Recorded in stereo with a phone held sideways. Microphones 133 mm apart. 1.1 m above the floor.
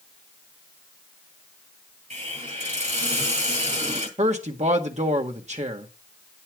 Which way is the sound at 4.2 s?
55° right (ahead or behind).